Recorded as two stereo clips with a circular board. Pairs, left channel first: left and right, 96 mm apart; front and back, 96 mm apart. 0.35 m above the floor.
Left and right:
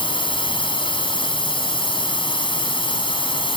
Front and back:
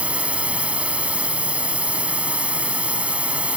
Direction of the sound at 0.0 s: 105° left.